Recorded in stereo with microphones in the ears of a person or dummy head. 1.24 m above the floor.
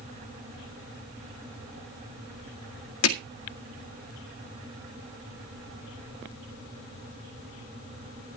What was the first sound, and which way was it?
Hammering, 80° left.